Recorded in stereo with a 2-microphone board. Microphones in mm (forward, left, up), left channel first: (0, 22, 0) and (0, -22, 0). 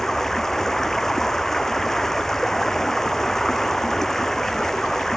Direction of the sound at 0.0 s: 10° left (ahead or behind).